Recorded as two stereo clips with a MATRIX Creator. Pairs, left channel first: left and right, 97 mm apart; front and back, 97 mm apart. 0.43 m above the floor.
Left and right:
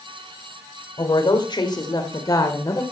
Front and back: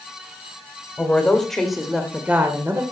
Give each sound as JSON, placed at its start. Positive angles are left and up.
{"t": 1.0, "sound": "a woman speaking", "azimuth_deg": 70, "distance_m": 1.8}